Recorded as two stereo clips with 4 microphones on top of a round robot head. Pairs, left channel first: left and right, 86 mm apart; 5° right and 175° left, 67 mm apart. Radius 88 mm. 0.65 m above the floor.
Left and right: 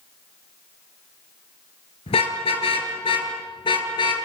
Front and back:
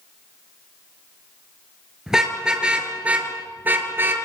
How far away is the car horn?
About 6 m.